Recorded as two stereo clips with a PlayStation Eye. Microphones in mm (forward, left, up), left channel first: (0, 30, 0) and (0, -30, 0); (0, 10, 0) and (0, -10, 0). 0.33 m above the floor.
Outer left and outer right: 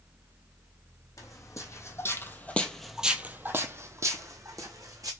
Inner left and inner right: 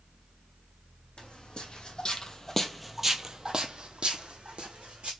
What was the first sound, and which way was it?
Footsteps, 60° left (ahead or behind).